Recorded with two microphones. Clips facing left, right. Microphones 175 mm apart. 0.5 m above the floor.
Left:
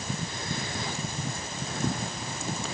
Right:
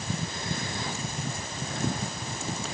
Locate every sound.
Only background noise.